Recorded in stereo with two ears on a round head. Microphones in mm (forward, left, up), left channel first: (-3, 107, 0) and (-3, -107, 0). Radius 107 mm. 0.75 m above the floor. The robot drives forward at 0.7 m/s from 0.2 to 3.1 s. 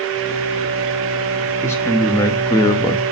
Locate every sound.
1.6 s a man speaking: 10° left (ahead or behind), 1.4 m; by 3.0 s 20° left (ahead or behind), 0.8 m